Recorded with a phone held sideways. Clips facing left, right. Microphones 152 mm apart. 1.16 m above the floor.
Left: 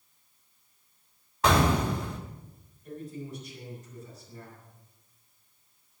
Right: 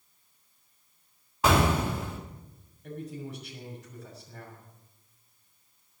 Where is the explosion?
5° right (ahead or behind), 3 m.